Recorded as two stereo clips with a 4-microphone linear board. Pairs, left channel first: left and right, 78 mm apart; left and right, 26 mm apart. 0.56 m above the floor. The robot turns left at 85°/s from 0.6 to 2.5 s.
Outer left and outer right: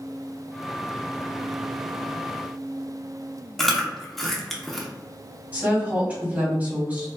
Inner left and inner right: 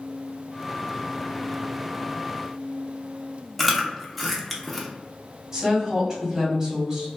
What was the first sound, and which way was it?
Chewing, centre (ahead or behind).